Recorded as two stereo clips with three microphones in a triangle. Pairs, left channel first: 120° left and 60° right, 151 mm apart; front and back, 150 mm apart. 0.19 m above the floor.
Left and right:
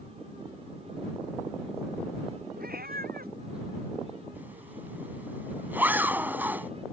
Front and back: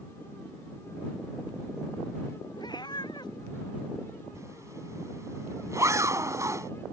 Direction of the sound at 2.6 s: 60° right.